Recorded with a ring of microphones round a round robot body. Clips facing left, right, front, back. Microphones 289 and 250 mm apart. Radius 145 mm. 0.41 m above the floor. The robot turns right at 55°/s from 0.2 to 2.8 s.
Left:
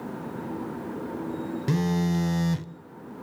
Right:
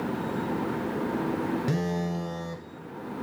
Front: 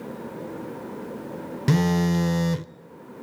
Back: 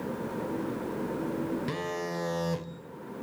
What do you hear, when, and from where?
1.7 s a phone buzzing: 15° left, 0.6 m; by 2.7 s 70° left, 0.6 m